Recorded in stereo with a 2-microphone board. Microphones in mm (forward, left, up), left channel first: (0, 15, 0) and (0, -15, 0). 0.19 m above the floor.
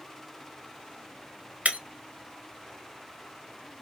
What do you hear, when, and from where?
1.6 s breaking glass: 55° right (ahead or behind), 0.7 m